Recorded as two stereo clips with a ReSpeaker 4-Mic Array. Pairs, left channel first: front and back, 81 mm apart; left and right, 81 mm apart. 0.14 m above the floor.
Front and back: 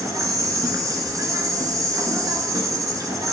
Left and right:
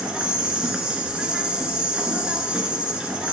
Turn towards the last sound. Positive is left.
turn(degrees=-165)